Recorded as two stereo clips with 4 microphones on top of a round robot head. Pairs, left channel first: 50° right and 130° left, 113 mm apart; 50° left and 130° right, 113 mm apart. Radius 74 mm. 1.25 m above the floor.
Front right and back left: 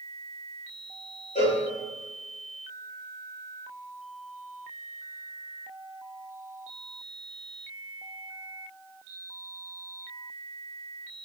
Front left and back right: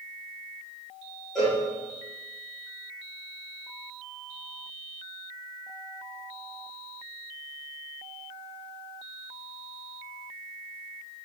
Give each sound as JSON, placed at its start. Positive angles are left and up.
{"t": 1.4, "sound": "a cowbell", "azimuth_deg": -35, "distance_m": 1.7}